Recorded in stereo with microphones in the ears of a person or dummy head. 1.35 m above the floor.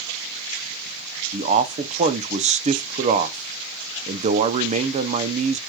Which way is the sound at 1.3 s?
30° right (ahead or behind).